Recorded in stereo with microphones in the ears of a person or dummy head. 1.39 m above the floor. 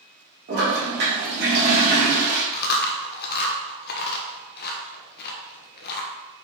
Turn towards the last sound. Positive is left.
turn(degrees=55)  # may be behind; listen again after turning